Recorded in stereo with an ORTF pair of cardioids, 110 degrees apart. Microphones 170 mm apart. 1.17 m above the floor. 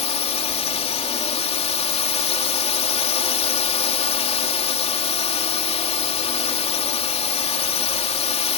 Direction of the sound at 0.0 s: 40° left.